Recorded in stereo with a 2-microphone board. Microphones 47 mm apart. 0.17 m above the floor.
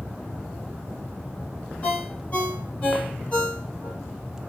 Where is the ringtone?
25° left (ahead or behind), 3 m.